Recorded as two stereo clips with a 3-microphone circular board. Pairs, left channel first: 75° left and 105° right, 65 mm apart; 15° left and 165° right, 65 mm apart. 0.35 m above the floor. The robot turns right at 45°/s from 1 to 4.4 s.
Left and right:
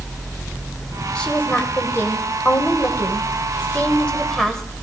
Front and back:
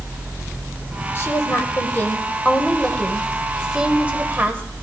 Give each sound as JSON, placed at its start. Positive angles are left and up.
{"t": 1.1, "sound": "a woman speaking", "azimuth_deg": 10, "distance_m": 1.3}